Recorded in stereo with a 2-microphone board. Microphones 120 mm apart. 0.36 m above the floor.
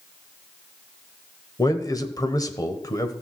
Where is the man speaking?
30° left (ahead or behind), 1.2 m.